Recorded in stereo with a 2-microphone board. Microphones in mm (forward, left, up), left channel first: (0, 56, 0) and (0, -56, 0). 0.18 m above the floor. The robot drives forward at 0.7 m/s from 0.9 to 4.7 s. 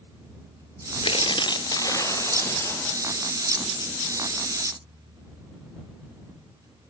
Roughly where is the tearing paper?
Left.